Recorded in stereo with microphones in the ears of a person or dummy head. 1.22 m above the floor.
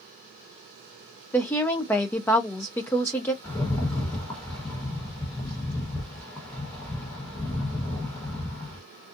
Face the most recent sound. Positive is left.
turn(degrees=20)  # may be behind; listen again after turning